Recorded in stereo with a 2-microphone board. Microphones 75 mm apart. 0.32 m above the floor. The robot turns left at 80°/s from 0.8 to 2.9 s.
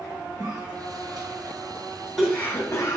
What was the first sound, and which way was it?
A cough, 45° right (ahead or behind).